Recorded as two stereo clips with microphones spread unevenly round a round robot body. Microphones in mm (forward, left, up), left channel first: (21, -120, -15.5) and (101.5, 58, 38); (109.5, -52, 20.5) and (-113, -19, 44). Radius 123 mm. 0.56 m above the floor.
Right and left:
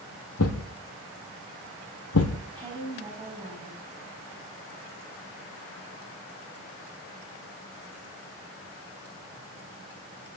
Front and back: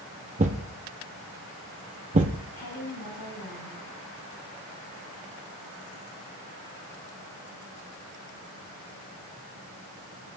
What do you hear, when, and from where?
0.4 s a thud: 140° right, 0.8 m
2.5 s a woman speaking: straight ahead, 5 m